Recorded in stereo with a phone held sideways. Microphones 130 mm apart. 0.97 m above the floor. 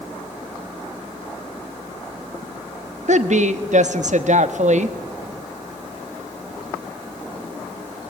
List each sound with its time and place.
3.1 s a woman speaking: 65° right (ahead or behind), 1.2 m